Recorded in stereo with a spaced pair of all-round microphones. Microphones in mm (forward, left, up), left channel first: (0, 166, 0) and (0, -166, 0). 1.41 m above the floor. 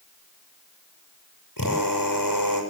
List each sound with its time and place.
1.6 s a drill: 75° left (ahead or behind), 7.5 m